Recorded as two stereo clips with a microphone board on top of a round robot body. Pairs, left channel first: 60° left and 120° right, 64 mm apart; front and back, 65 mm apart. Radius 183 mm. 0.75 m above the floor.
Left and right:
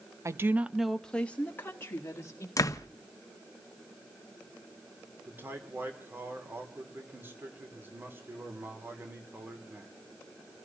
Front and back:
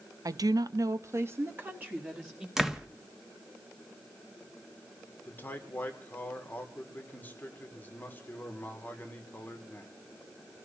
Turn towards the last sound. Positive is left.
turn(degrees=-60)